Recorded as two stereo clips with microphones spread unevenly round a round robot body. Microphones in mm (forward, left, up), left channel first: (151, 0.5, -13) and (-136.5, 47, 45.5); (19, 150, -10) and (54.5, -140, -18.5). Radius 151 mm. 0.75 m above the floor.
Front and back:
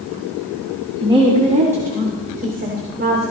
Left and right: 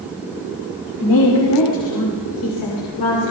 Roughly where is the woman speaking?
Left.